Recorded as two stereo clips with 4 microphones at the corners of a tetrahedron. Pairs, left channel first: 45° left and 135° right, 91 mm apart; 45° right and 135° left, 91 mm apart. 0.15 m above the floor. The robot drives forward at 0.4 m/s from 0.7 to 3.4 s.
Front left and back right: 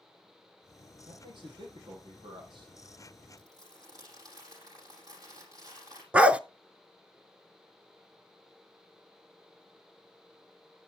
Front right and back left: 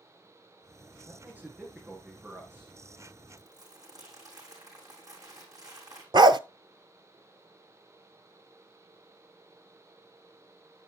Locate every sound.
1.1 s a man speaking: 155° right, 5 m
3.4 s crumpling: straight behind, 7.5 m
6.1 s a dog barking: 150° left, 0.6 m